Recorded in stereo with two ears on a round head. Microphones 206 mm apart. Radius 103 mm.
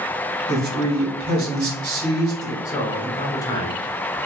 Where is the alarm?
I don't hear an alarm.